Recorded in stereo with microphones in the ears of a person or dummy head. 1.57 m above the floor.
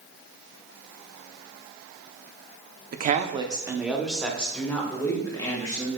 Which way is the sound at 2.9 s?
40° right (ahead or behind).